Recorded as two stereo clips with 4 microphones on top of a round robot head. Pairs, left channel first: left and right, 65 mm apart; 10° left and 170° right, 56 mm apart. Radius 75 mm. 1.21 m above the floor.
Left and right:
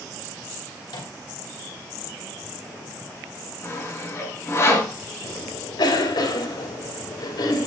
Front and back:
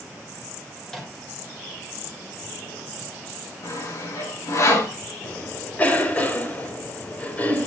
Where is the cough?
75° left, 4 m.